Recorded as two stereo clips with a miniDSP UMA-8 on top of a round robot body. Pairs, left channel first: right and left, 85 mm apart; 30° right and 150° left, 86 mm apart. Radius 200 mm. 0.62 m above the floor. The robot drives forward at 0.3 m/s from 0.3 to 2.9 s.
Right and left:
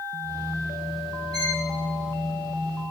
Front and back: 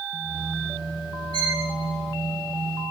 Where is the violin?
130° left, 3.5 m.